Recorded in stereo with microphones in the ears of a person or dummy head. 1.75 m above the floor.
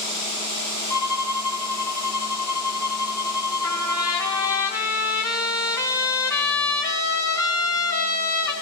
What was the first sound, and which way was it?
A violin, 20° left (ahead or behind).